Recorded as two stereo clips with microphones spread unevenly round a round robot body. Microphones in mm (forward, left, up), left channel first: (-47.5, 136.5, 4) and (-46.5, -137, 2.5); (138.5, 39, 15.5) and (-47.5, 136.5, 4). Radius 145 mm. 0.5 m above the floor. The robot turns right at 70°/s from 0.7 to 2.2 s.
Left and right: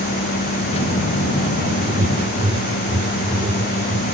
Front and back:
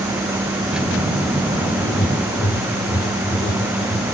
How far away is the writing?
About 1.5 m.